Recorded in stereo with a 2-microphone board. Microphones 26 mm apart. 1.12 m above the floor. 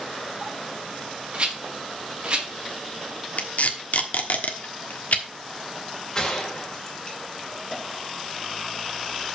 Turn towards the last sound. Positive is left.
turn(degrees=20)  # may be behind; listen again after turning